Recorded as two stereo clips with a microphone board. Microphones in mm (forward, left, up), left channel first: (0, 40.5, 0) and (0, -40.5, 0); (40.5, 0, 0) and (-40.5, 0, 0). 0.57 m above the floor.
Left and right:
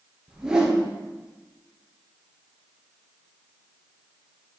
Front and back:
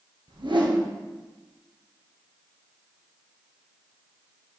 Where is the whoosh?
170° right, 1.6 m.